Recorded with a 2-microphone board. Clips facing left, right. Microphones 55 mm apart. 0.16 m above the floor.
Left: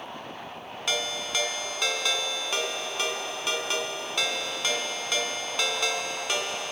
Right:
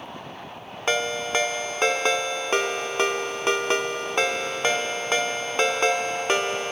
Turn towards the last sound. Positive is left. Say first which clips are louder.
# right 6 dB
turn(degrees=-35)  # may be behind; listen again after turning